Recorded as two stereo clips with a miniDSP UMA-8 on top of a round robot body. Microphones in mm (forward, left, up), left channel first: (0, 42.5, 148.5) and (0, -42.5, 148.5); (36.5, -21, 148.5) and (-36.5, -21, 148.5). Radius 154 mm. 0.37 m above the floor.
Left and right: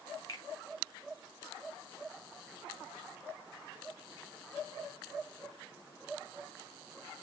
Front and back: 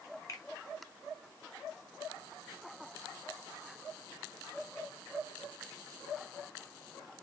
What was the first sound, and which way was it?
A finger snap, 40° left.